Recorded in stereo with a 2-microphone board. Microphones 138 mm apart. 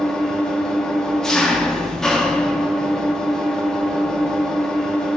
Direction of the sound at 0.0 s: 5° left (ahead or behind).